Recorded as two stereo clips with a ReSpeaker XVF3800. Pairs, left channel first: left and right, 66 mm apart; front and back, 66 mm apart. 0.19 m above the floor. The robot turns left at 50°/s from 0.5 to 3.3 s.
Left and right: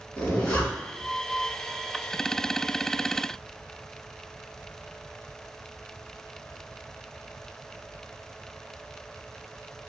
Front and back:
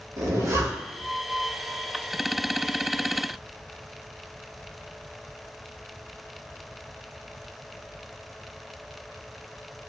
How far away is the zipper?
About 0.8 m.